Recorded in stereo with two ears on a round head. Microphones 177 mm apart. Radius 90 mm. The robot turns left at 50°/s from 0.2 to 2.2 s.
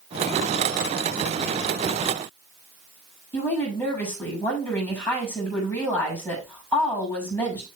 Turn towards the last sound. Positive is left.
turn(degrees=10)  # may be behind; listen again after turning